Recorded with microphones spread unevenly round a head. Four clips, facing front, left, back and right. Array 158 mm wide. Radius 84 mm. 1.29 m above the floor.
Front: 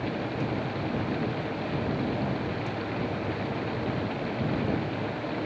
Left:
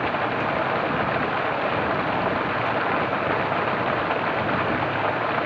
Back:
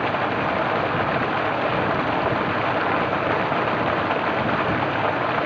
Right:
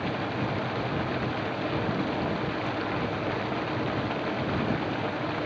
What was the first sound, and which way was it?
Running water, 145° left.